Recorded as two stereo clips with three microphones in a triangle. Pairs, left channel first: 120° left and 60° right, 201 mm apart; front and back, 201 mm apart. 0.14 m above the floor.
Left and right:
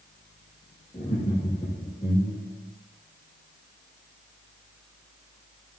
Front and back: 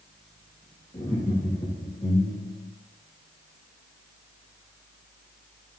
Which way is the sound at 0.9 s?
50° left.